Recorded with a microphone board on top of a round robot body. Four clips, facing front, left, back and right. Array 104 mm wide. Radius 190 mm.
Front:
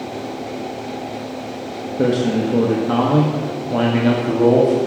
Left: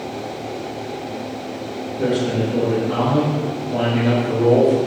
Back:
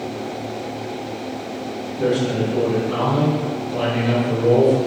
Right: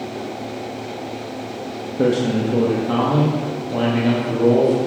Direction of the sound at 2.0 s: 45° right.